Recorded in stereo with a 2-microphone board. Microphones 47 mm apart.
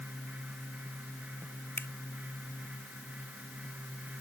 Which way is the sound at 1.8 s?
50° left (ahead or behind).